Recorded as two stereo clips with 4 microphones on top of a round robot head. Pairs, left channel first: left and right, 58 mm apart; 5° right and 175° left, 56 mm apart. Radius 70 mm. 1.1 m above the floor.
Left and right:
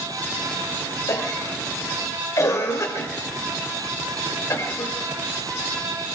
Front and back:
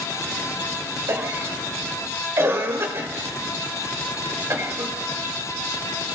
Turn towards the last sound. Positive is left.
turn(degrees=130)